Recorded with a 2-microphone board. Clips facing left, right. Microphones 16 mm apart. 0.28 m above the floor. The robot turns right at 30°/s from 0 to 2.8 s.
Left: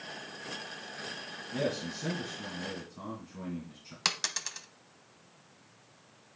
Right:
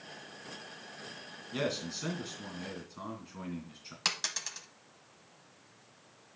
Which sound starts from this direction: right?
A man speaking, at 1.5 s.